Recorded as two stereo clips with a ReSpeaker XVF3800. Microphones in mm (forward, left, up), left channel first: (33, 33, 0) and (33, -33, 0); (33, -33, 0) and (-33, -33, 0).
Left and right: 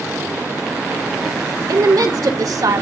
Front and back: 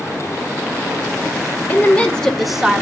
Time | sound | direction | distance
1.7 | a woman speaking | 65° right | 1.8 m